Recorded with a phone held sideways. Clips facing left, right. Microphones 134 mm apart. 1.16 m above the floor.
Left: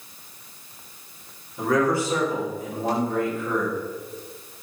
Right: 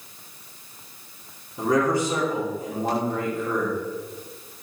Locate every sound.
1.6 s a man speaking: 20° right (ahead or behind), 3 m